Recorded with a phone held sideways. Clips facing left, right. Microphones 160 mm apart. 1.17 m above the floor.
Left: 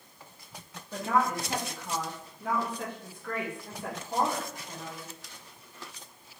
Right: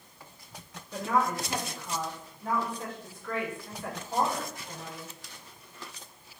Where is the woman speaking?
65° left (ahead or behind), 1.7 m; by 5.1 s 5° right (ahead or behind), 1.6 m.